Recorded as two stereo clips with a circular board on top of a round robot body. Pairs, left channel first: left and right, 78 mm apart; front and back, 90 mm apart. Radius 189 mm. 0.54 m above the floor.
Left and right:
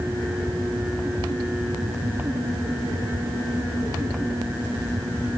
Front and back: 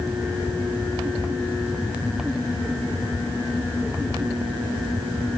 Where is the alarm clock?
No alarm clock in this recording.